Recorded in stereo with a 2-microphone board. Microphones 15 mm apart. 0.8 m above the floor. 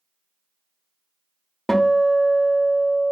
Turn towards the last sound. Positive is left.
turn(degrees=40)  # may be behind; listen again after turning